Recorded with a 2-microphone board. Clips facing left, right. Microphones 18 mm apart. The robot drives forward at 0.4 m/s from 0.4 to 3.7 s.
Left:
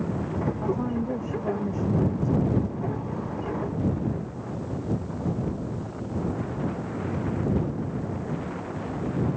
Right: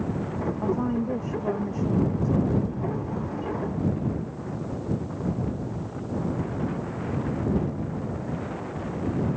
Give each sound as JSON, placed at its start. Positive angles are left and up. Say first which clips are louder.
{"t": 0.6, "sound": "a woman speaking", "louder": "right 4 dB", "side_deg": -15}